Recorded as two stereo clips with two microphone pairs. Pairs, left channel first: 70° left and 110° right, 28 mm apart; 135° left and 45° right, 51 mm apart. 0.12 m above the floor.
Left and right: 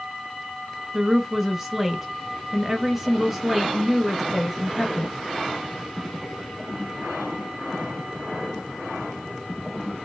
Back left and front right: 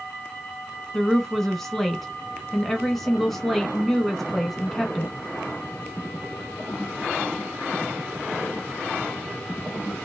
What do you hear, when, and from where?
0.9 s a woman speaking: 155° right, 1.1 m